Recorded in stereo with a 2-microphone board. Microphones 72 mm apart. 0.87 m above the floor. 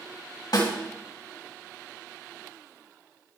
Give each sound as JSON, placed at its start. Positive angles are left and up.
{"t": 0.5, "sound": "a snare drum", "side_deg": 75, "distance_m": 3.0}